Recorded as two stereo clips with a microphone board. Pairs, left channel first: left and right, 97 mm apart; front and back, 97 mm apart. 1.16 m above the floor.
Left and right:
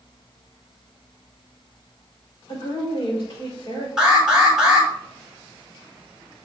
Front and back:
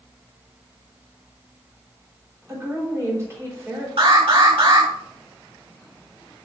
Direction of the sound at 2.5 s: 120° left.